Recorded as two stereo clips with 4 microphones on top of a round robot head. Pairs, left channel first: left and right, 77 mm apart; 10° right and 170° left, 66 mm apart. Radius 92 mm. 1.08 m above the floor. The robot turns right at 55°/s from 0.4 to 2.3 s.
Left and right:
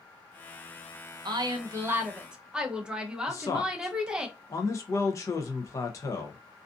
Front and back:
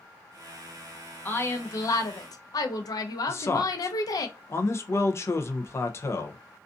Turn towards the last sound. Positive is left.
turn(degrees=40)